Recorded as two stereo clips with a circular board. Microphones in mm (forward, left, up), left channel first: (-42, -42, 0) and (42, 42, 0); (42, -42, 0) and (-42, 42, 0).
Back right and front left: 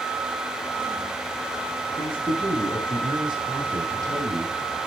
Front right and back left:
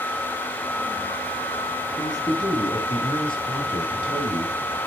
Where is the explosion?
No explosion in this recording.